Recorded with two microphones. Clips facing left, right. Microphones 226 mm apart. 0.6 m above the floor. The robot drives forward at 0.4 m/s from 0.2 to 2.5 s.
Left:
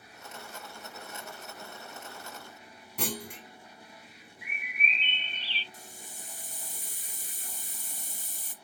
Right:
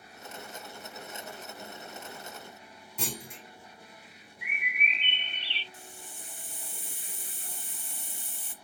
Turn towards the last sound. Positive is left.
turn(degrees=40)  # may be behind; listen again after turning